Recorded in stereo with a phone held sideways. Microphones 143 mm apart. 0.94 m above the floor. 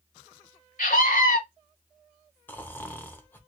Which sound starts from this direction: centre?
Snoring, at 2.5 s.